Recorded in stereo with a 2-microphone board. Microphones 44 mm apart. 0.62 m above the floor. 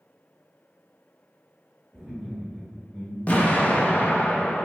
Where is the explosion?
35° left (ahead or behind), 0.5 m.